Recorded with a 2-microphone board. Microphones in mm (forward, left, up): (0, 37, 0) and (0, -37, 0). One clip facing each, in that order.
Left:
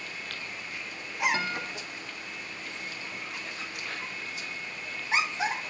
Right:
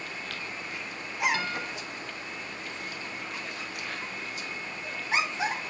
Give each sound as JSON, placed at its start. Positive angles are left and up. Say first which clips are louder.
{"t": 1.3, "sound": "a guitar", "louder": "even", "side_deg": 35, "distance_m": 1.8}